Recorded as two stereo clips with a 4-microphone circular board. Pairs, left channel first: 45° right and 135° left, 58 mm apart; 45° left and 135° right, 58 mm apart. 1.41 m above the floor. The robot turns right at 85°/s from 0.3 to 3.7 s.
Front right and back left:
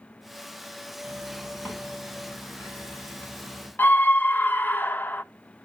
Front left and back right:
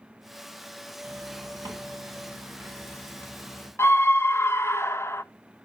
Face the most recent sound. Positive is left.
turn(degrees=5)